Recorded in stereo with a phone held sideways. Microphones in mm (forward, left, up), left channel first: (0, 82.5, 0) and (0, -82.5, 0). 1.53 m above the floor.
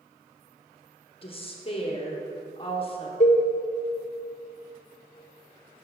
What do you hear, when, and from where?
1.2 s a woman speaking: 35° left (ahead or behind), 1.1 m
3.2 s a cowbell: 45° left (ahead or behind), 0.8 m